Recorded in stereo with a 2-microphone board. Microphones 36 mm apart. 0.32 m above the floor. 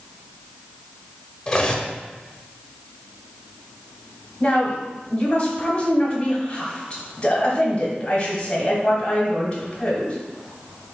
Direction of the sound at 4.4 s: 20° left (ahead or behind).